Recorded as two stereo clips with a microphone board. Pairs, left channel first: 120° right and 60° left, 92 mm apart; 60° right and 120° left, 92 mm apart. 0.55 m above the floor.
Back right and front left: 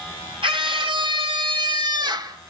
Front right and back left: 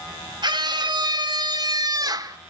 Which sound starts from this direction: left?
A scream, at 0.4 s.